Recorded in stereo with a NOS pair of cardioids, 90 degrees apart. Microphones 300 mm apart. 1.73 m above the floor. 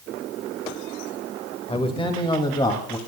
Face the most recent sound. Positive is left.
turn(degrees=15)